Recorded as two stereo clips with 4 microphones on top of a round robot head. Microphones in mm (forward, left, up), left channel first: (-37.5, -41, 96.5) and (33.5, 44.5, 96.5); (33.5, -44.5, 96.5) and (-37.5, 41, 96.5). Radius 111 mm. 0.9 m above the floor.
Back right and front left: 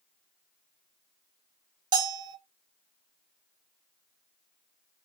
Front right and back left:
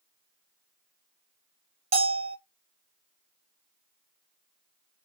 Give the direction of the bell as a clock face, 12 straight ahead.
8 o'clock.